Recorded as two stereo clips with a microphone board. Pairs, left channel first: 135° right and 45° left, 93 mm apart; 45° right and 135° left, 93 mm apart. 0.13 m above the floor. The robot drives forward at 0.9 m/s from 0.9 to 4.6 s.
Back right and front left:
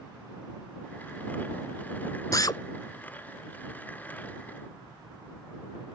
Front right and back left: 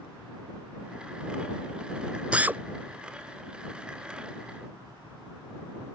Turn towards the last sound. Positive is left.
turn(degrees=-175)